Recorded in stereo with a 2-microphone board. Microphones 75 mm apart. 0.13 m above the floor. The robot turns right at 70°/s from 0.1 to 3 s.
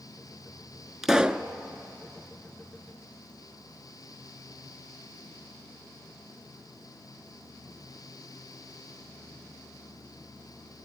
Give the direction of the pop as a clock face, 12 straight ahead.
6 o'clock.